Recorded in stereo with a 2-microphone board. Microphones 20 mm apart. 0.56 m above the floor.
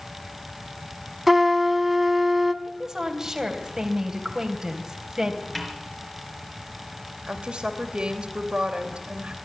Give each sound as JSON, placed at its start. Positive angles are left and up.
{"t": 1.3, "sound": "a trumpet", "side_deg": -5, "distance_m": 1.5}
{"t": 2.6, "sound": "a woman speaking", "side_deg": -30, "distance_m": 3.0}
{"t": 5.5, "sound": "a snare drum", "side_deg": 10, "distance_m": 4.5}
{"t": 7.3, "sound": "a woman speaking", "side_deg": -55, "distance_m": 3.0}